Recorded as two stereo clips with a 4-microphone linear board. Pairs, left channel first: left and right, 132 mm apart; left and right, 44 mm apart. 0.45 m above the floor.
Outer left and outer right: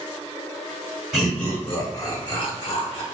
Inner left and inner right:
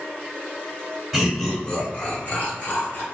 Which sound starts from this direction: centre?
Laughter, at 1.1 s.